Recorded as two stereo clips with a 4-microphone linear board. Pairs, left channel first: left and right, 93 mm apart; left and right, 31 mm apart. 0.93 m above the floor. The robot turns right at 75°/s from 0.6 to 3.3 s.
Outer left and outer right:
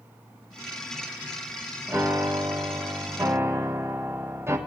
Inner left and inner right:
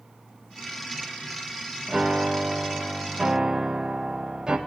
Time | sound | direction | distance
1.9 | a piano | 145° right | 1.2 m